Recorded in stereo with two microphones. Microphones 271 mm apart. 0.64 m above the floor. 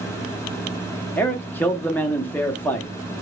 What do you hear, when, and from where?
1.2 s a man speaking: 5° left (ahead or behind), 0.7 m